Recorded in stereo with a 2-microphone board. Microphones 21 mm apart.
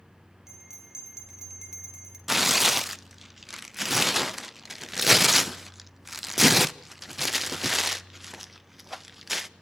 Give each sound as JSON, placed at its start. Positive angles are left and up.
{"t": 0.5, "sound": "a bell", "side_deg": -20, "distance_m": 4.5}
{"t": 2.3, "sound": "tearing paper", "side_deg": -5, "distance_m": 0.6}